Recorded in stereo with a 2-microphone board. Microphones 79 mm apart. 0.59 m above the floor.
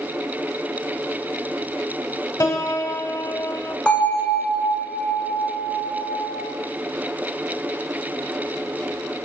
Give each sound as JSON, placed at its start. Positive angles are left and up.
{"t": 2.4, "sound": "a piano", "side_deg": 45, "distance_m": 1.1}
{"t": 3.9, "sound": "a bell", "side_deg": 15, "distance_m": 1.7}